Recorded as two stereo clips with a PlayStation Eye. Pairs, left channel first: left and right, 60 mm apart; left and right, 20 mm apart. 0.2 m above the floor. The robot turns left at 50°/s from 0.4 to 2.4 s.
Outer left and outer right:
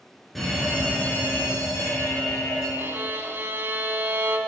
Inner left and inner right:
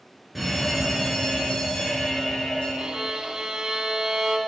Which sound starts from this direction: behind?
An alarm, at 0.3 s.